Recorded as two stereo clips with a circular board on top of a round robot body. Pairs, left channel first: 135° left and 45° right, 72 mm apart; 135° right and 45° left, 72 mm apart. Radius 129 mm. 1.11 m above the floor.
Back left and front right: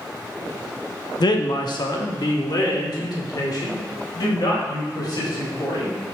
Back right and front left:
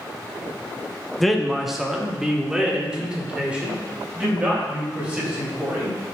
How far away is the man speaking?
About 0.8 m.